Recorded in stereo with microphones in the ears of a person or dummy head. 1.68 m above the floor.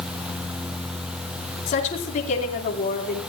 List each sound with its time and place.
1.7 s a woman speaking: 40° left (ahead or behind), 4.5 m